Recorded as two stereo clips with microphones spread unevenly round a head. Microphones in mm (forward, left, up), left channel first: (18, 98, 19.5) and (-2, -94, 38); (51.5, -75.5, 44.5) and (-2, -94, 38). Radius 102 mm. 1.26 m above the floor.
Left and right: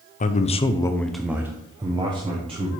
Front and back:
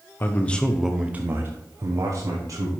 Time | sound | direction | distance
0.2 | a man speaking | 65° left | 0.6 m